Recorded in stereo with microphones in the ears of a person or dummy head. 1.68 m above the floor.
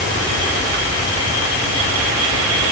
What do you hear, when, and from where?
Only background noise.